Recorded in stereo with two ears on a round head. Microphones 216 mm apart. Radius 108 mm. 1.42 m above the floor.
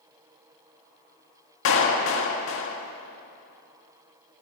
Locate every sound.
1.6 s a clap: 60° left (ahead or behind), 1.7 m